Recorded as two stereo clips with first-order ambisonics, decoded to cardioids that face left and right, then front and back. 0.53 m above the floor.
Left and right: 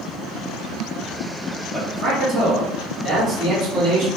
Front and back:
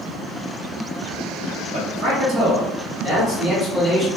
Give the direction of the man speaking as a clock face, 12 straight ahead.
5 o'clock.